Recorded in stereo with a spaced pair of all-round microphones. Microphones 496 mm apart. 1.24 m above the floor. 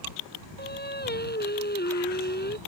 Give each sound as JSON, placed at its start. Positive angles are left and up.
{"t": 0.6, "sound": "singing", "side_deg": 20}